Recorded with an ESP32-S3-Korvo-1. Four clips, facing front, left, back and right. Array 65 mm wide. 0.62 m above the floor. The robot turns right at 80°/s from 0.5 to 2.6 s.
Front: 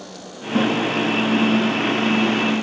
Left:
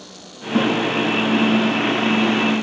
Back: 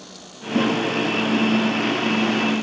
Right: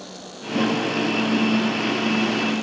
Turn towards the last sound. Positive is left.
turn(degrees=-140)